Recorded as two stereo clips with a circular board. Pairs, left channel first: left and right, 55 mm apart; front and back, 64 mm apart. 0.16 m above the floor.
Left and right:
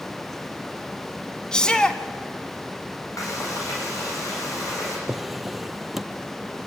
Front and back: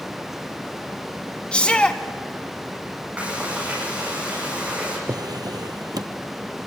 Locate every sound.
1.5 s a shout: 40° left, 1.2 m
3.2 s frying: 110° left, 7.5 m
5.1 s a drawer: straight behind, 0.9 m